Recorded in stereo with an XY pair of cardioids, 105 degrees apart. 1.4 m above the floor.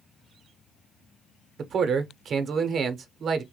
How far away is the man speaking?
About 0.6 m.